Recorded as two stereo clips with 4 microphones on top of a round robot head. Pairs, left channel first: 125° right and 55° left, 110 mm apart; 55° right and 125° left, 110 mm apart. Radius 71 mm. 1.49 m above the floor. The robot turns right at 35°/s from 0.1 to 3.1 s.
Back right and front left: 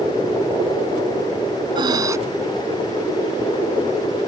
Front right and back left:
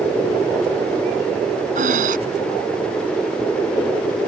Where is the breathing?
105° left; by 2.2 s 120° left.